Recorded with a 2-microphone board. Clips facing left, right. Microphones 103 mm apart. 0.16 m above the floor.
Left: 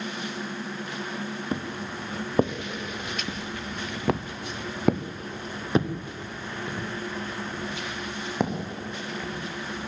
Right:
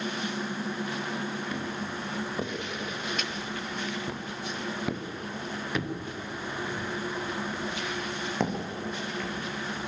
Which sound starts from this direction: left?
Footsteps, at 1.5 s.